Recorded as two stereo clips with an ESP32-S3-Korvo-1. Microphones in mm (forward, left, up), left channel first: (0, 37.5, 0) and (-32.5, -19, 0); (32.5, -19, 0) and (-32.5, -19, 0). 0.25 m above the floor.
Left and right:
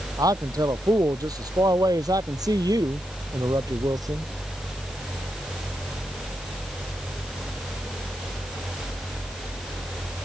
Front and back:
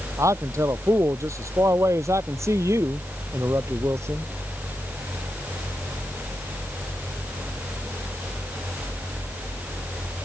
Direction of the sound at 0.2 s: 140° right.